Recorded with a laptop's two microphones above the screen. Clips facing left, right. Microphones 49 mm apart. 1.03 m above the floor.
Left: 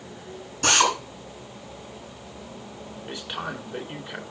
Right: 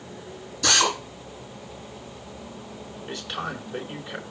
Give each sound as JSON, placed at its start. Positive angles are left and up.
{"t": 0.6, "sound": "a drill", "side_deg": 55, "distance_m": 8.0}
{"t": 3.1, "sound": "a man speaking", "side_deg": 15, "distance_m": 3.0}